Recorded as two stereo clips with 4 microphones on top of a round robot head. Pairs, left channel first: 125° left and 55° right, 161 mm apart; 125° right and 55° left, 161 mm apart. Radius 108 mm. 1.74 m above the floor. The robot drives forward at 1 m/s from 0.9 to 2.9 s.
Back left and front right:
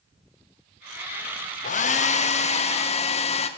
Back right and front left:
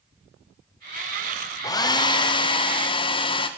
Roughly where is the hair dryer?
Behind.